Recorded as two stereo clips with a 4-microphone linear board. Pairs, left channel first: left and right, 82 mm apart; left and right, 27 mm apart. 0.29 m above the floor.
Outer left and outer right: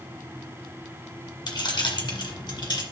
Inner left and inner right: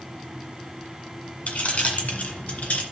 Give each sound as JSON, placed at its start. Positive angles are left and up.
{"t": 1.5, "sound": "keys jangling", "side_deg": 65, "distance_m": 1.8}